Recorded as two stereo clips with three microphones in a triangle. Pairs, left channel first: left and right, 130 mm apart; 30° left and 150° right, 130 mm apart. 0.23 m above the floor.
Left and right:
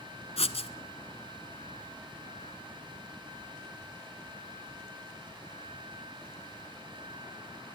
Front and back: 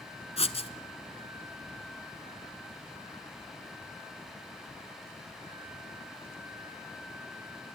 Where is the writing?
60° left, 1.4 m.